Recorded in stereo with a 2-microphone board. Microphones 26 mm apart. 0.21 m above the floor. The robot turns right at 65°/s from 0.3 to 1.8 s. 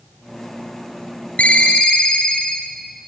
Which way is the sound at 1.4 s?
65° left (ahead or behind).